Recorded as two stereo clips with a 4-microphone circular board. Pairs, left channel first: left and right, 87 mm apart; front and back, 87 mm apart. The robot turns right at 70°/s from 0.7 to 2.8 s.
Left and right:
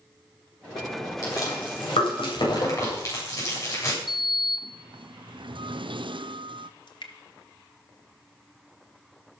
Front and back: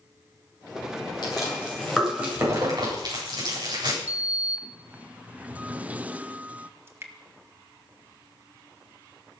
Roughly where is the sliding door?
Right.